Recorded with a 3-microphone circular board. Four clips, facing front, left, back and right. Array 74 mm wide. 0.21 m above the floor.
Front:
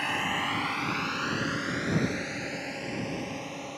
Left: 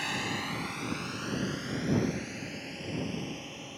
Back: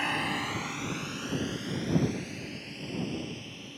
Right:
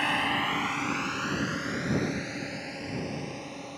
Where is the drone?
95° right; by 3.8 s 25° right.